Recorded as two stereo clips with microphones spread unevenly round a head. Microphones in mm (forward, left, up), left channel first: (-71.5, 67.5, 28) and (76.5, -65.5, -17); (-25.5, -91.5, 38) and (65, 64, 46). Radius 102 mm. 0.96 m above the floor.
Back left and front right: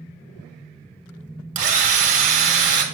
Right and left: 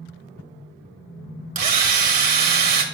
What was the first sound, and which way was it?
A drill, 15° left.